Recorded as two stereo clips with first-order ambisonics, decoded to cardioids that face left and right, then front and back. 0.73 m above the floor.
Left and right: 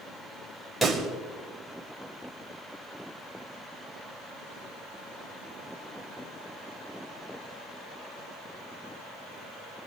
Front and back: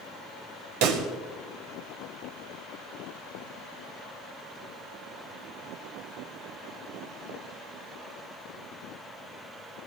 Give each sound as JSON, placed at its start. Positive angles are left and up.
{"t": 0.8, "sound": "a pop", "azimuth_deg": 180, "distance_m": 2.5}